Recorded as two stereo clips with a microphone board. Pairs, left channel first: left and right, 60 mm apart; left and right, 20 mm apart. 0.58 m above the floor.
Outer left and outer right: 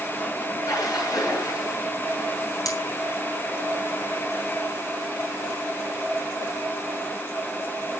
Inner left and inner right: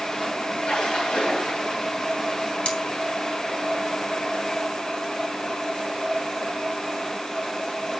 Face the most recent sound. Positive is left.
turn(degrees=80)